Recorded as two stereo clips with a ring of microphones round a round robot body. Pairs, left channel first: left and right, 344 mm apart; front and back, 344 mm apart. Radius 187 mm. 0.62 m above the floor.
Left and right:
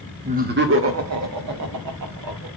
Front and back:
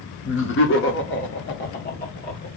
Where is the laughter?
30° right, 1.0 m; by 2.5 s 65° right, 2 m.